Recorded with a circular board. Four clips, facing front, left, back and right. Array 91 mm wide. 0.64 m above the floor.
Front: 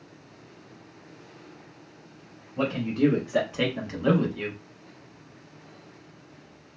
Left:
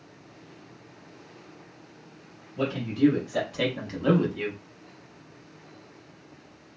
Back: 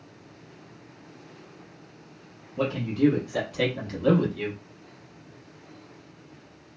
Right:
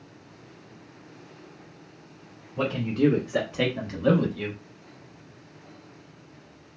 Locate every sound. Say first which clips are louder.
2.6 s a man speaking: even, even; 60° right, 1.3 m; by 4.6 s 75° left, 1.0 m